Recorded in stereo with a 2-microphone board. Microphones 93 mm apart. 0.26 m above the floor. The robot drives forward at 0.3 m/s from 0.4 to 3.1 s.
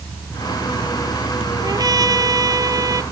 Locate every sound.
1.6 s a trumpet: 45° right (ahead or behind); by 3.0 s 40° right (ahead or behind)